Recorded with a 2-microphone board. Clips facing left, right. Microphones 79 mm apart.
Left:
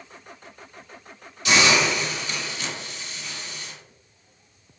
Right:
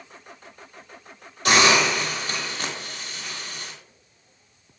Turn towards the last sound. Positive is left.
turn(degrees=-55)  # may be behind; listen again after turning